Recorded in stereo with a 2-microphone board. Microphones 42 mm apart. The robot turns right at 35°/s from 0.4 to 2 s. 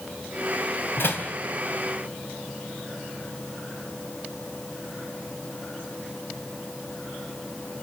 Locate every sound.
1.0 s a door slam: 65° left (ahead or behind), 4 m; by 1.3 s 55° left (ahead or behind), 4 m